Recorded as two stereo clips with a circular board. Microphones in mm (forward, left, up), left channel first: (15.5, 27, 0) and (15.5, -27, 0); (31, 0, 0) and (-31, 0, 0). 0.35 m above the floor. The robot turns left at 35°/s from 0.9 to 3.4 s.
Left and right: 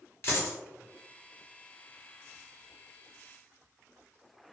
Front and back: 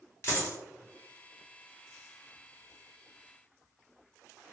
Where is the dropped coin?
50° left, 1.0 m.